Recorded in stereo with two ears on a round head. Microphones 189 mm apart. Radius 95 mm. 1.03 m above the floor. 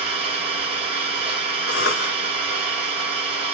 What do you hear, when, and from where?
0.0 s an engine running: 25° right (ahead or behind), 0.8 m
1.7 s a cough: 65° left (ahead or behind), 1.7 m